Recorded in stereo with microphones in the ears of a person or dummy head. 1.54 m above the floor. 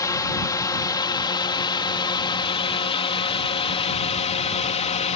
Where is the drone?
20° left (ahead or behind); by 5.2 s 35° left (ahead or behind).